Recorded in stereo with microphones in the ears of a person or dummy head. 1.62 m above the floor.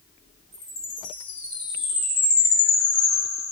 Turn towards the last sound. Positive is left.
turn(degrees=-15)  # may be behind; listen again after turning